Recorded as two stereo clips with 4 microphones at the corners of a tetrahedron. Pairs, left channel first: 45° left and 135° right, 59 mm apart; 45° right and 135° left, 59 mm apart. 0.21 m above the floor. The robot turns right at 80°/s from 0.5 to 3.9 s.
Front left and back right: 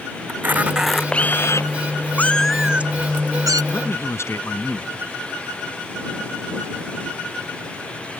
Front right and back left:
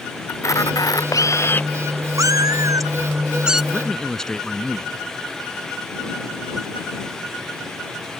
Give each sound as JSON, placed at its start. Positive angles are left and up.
{"t": 0.3, "sound": "a camera shutter", "azimuth_deg": -80}
{"t": 2.2, "sound": "a cat meowing", "azimuth_deg": 105}
{"t": 3.7, "sound": "a man speaking", "azimuth_deg": 20}